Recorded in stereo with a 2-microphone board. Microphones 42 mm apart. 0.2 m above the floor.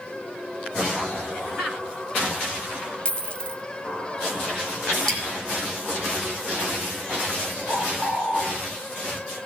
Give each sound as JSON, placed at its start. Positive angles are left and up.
{"t": 3.0, "sound": "a dropped coin", "side_deg": 25, "distance_m": 0.6}
{"t": 5.1, "sound": "dripping", "side_deg": 5, "distance_m": 3.0}
{"t": 7.7, "sound": "a bird", "side_deg": 40, "distance_m": 6.5}